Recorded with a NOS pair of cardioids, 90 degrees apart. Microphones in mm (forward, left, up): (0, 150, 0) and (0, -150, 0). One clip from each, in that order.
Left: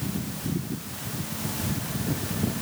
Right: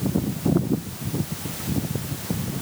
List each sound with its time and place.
Only background noise.